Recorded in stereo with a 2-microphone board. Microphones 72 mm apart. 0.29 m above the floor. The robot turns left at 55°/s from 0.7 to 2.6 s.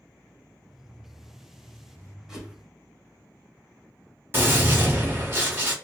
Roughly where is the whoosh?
Centre.